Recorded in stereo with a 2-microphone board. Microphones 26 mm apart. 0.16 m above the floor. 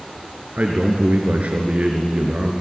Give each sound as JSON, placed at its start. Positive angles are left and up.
{"t": 0.6, "sound": "a man speaking", "side_deg": -60, "distance_m": 2.5}